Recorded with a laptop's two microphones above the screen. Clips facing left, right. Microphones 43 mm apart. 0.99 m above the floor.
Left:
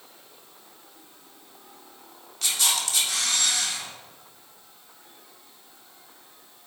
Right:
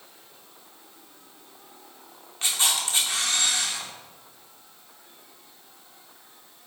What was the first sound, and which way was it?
A camera shutter, 30° right (ahead or behind).